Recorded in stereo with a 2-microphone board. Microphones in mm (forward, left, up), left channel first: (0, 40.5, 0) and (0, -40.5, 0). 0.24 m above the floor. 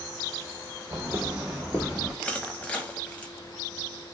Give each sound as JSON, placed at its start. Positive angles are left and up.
{"t": 0.9, "sound": "footsteps", "side_deg": -35, "distance_m": 0.8}
{"t": 2.2, "sound": "crushing", "side_deg": 15, "distance_m": 0.6}